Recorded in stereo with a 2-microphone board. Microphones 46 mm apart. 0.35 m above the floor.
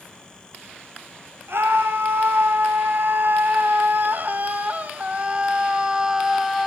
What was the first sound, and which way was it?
A scream, 65° right (ahead or behind).